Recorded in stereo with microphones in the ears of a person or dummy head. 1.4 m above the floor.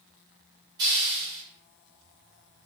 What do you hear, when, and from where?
0.8 s a hiss: 20° right (ahead or behind), 0.6 m